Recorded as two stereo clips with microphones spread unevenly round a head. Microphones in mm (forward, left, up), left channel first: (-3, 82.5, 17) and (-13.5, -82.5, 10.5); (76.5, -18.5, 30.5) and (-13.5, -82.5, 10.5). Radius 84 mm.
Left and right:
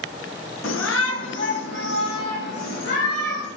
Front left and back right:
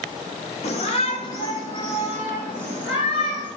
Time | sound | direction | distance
0.6 | a shout | 85° left | 1.8 m